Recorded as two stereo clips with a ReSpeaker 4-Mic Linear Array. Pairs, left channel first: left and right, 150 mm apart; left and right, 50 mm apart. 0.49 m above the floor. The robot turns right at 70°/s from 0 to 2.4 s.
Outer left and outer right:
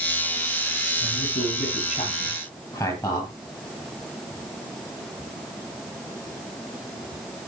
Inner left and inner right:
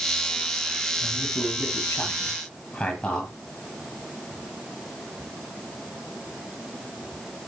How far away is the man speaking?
About 9 m.